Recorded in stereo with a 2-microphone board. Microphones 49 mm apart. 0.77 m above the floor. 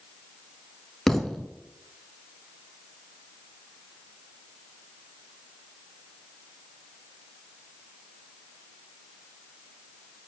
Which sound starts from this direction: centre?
A thud, at 1.1 s.